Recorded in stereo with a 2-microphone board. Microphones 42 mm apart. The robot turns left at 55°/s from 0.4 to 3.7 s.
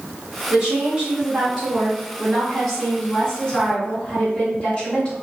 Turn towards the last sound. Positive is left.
turn(degrees=25)  # may be behind; listen again after turning